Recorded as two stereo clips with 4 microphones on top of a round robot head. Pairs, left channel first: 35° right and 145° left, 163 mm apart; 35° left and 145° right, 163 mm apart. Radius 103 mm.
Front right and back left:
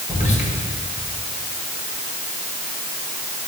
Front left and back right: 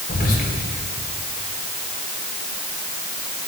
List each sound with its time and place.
0.1 s whispering: 5° left, 3 m